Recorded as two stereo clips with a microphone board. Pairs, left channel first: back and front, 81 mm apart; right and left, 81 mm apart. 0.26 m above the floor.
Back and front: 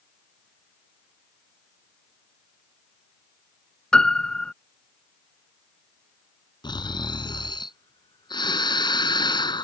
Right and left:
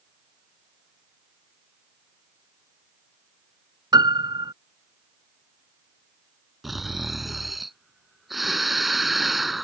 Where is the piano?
100° left.